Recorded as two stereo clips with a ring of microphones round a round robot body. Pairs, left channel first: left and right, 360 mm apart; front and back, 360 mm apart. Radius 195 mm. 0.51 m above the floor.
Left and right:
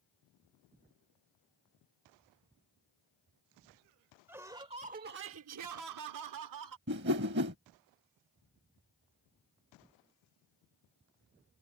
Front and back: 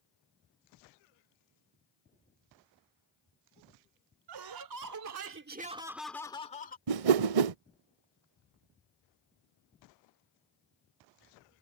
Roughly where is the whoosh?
Behind right.